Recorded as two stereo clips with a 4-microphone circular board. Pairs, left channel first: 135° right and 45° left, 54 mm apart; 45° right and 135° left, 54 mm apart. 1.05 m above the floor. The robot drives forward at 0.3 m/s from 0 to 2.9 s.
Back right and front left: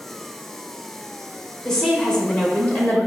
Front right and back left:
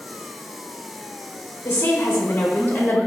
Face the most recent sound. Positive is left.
turn(degrees=-90)